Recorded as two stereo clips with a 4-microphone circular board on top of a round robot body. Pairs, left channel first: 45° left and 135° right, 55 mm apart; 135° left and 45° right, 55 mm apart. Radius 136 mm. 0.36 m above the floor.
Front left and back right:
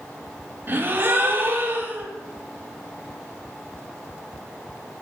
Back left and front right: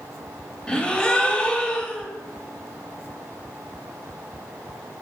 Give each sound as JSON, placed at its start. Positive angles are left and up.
{"t": 0.7, "sound": "a gasp", "azimuth_deg": -160, "distance_m": 1.2}